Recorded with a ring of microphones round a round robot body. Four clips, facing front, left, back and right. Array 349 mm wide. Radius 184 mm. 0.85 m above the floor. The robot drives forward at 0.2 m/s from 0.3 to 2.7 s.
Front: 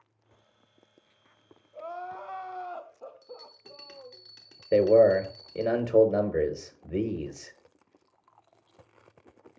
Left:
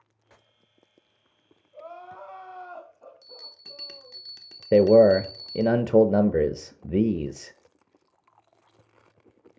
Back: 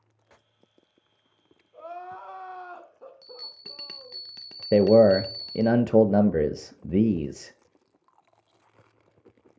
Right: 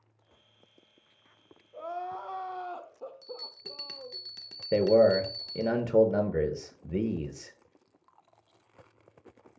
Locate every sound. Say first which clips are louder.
1.7 s crying: right 5 dB, front 1 dB; 100° right, 0.9 m; by 4.2 s 110° right, 1.0 m
3.2 s a bell: right 7 dB, front 1 dB; 175° right, 0.8 m
4.7 s a man speaking: left 6 dB, back 2 dB; 135° left, 0.7 m